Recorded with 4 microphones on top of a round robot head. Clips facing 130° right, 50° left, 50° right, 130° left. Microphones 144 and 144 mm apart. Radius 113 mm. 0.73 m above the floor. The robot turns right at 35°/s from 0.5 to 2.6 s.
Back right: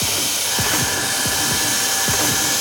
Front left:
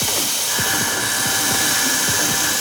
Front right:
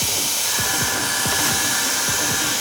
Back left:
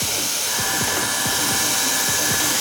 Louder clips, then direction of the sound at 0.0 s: Front left 1 dB, even; 10° left.